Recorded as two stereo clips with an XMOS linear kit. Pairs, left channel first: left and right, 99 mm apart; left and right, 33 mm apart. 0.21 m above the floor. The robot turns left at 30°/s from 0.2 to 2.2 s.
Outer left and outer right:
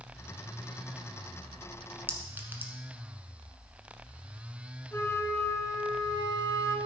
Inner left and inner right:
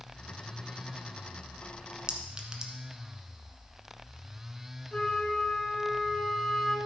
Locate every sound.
2.1 s a clink: 20° right (ahead or behind), 1.2 m
4.9 s a flute: 25° left (ahead or behind), 1.3 m